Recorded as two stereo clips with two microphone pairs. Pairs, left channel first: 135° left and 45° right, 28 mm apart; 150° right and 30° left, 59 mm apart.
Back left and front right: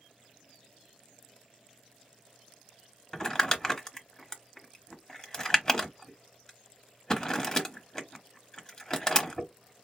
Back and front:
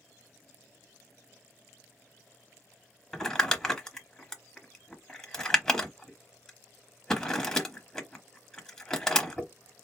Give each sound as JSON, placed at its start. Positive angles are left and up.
{"t": 3.1, "sound": "crumpling", "azimuth_deg": 145, "distance_m": 0.8}